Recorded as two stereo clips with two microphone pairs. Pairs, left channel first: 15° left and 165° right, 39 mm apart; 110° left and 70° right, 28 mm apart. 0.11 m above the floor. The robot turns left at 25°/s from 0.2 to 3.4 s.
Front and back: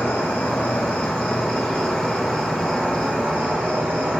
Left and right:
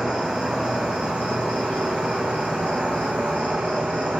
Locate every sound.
0.0 s an insect: 20° right, 1.0 m; by 4.2 s 100° right, 1.0 m